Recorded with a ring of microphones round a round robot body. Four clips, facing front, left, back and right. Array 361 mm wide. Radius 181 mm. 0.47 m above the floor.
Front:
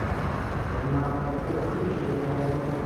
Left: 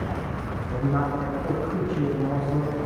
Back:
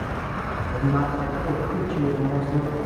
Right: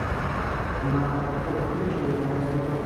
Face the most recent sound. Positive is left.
turn(degrees=125)